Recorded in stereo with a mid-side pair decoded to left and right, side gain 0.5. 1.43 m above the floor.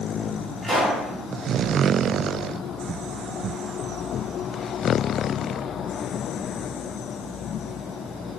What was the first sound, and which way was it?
A pop, 15° right.